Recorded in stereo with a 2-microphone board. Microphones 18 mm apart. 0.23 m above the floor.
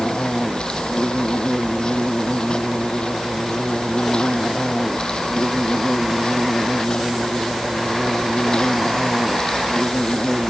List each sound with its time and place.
0.0 s an insect: 50° left (ahead or behind)